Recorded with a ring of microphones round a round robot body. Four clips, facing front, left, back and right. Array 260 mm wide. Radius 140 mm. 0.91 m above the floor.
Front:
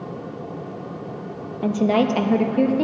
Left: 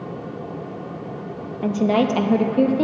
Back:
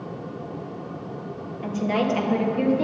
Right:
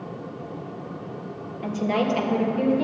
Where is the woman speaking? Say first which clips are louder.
Left 5 dB, front 5 dB; 40° left, 1.2 m; by 2.8 s 60° left, 1.6 m.